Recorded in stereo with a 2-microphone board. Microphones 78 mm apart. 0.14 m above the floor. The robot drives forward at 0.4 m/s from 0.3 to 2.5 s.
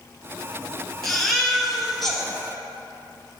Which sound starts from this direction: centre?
A baby crying, at 1.0 s.